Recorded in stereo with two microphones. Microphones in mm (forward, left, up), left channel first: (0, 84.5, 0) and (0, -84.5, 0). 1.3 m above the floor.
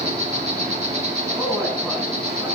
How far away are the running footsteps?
I don't hear running footsteps.